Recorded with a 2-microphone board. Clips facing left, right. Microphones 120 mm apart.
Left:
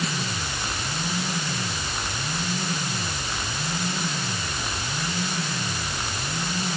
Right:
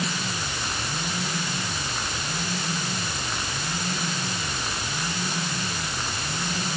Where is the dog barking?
No dog barking in this recording.